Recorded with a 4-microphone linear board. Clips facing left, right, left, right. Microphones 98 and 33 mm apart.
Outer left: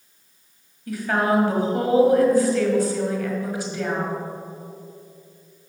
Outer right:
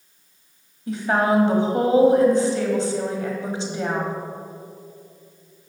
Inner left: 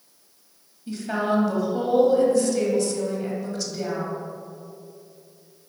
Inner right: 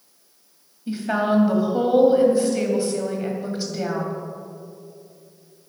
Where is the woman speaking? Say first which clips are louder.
Outer right 1 dB, inner right 3 dB; 25° right (ahead or behind), 1.5 m.